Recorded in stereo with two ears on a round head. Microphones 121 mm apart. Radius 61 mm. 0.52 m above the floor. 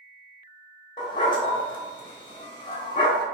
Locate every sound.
1.0 s a dog barking: 35° left (ahead or behind), 0.9 m